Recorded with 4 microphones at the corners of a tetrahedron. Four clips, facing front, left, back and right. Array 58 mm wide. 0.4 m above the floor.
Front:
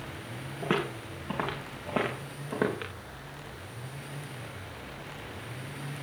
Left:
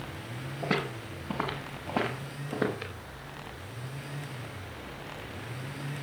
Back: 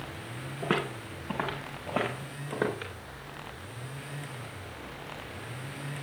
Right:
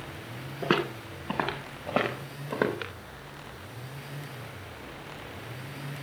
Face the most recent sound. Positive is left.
turn(degrees=-75)